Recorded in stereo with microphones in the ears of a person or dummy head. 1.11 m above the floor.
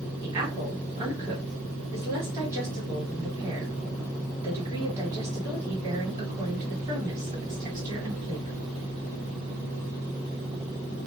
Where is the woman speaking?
20° right (ahead or behind), 1.5 m.